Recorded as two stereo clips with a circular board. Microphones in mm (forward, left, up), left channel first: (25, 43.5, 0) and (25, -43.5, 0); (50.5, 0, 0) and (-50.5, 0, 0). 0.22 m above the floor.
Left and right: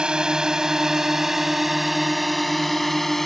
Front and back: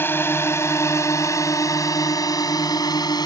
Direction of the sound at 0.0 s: 25° right.